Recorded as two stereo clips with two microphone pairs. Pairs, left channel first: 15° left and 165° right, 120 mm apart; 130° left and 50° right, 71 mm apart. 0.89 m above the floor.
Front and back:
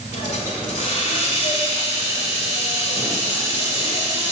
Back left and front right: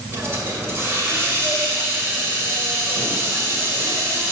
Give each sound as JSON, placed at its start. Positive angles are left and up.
{"t": 0.1, "sound": "a hiss", "azimuth_deg": 5, "distance_m": 2.0}